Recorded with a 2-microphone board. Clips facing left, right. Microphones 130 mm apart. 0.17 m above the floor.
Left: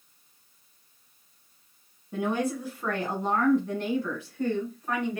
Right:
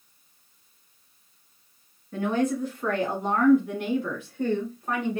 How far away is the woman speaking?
About 1.4 m.